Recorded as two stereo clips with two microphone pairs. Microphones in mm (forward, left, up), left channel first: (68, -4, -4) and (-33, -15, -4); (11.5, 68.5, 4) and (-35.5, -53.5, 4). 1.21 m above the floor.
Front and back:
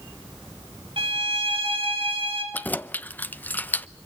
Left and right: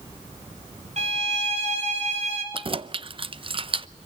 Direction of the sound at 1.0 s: 145° right.